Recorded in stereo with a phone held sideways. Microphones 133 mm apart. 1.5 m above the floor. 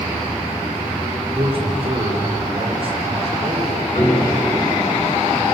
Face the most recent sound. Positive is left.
turn(degrees=45)  # may be behind; listen again after turning